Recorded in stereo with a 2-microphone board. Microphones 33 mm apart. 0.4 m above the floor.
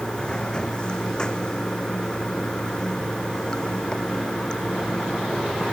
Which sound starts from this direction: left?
Running water, at 0.0 s.